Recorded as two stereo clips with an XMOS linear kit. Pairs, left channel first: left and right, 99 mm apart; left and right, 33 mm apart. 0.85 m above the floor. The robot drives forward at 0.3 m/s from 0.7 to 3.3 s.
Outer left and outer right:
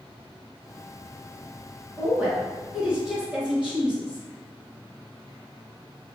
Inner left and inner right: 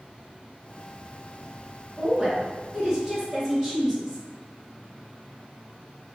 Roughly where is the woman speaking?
Centre.